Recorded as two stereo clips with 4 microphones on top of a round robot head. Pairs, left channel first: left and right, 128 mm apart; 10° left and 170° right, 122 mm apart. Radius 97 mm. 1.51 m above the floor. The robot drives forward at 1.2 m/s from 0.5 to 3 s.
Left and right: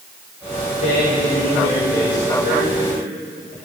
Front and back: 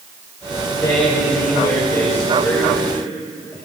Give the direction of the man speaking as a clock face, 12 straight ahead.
10 o'clock.